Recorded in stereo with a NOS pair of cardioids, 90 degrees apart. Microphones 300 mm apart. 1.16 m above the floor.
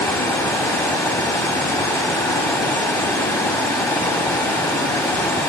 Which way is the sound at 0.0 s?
10° left.